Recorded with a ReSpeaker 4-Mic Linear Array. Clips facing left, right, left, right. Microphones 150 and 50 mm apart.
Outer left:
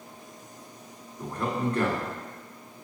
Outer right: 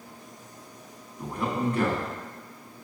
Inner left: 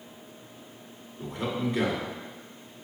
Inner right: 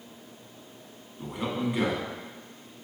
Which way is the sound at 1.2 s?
10° right (ahead or behind).